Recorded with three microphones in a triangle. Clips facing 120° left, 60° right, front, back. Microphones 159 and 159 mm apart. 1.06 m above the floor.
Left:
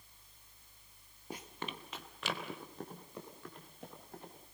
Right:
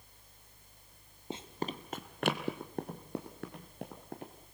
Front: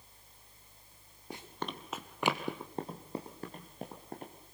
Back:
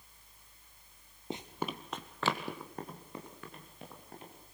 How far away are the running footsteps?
About 1.5 m.